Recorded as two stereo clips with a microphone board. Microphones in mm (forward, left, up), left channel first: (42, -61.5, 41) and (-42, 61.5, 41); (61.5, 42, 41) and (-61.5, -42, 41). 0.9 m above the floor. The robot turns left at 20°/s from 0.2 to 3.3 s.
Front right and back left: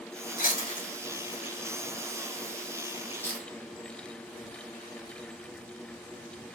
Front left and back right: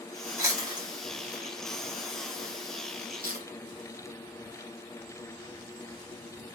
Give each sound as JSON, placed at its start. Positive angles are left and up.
{"t": 0.4, "sound": "chewing", "azimuth_deg": -75, "distance_m": 1.5}